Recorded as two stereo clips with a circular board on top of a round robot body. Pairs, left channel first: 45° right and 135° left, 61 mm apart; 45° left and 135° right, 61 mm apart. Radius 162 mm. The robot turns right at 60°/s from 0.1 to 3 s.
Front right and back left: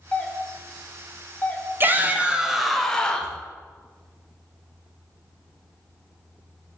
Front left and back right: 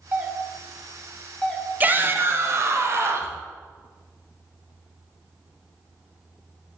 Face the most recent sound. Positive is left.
turn(degrees=-115)